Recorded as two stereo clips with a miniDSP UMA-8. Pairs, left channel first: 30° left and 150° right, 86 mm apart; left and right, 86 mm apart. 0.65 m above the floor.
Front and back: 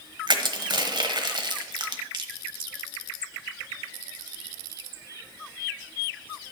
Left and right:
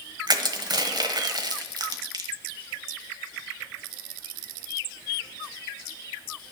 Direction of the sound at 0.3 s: 125° right.